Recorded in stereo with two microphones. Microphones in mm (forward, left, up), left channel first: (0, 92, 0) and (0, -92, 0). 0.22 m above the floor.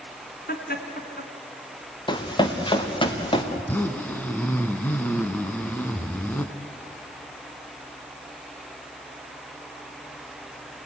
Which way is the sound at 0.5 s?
50° left (ahead or behind).